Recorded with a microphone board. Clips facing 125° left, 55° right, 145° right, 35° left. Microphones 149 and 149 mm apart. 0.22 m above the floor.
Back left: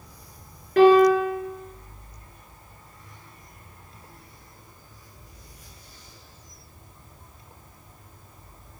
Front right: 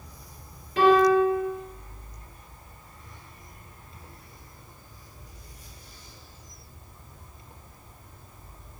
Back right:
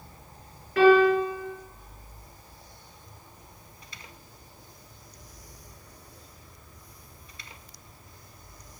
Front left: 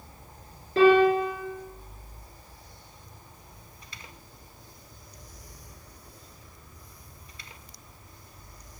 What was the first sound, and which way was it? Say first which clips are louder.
A piano: back left 4 dB, even; 95° left.